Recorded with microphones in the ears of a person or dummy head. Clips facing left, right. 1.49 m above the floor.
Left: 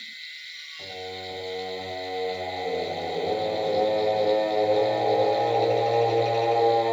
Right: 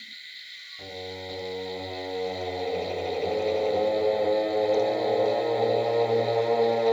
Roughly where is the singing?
Right.